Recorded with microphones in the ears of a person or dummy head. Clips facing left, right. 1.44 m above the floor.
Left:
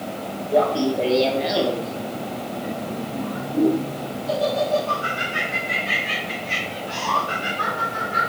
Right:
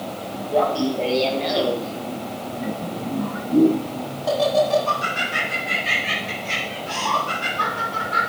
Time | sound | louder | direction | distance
0.5 | laughter | left 1 dB | 25° left (ahead or behind) | 1.8 m